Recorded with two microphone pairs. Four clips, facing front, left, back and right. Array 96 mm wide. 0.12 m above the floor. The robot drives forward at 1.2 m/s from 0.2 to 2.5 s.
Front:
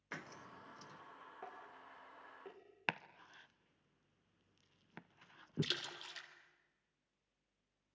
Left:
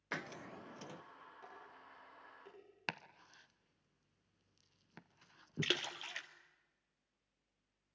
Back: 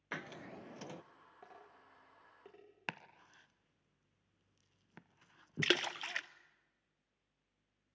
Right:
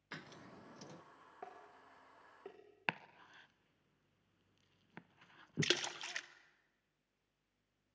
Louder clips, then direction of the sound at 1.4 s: Right 6 dB, front 4 dB; 70° right.